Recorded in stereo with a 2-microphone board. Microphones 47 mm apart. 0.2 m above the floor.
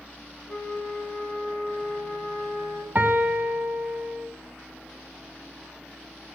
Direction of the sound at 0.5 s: 25° left (ahead or behind).